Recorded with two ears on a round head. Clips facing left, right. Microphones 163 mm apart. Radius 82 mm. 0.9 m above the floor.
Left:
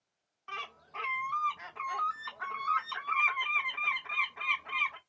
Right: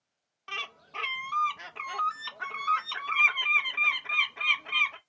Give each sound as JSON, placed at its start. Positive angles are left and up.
{"t": 0.5, "sound": "a bird", "side_deg": -35, "distance_m": 0.7}